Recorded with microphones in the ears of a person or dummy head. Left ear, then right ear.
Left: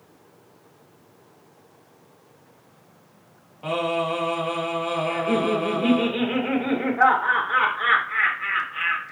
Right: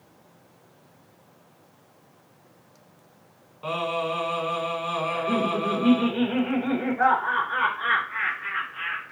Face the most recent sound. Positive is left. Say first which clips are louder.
# left 3 dB
turn(degrees=85)